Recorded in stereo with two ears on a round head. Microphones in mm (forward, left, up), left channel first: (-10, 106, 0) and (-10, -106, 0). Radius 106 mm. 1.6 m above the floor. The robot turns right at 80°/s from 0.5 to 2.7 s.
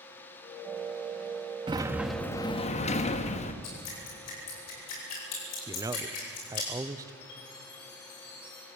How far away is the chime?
About 5 m.